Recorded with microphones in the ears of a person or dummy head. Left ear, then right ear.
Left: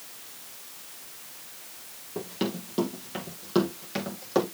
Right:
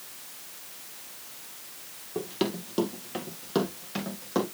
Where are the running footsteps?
20° right (ahead or behind), 2.5 m; by 4.5 s 15° left (ahead or behind), 4 m.